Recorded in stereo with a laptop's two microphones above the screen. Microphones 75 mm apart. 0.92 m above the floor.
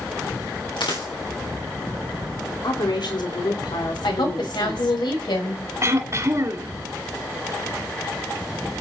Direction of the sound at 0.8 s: 85° left.